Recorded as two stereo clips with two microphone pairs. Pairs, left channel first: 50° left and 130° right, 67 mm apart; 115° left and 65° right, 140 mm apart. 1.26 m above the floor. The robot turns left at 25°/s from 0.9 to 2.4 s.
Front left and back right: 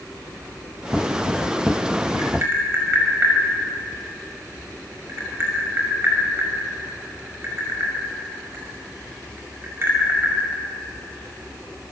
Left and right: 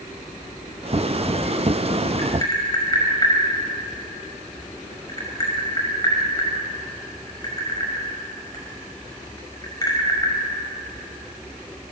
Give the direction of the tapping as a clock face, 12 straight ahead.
6 o'clock.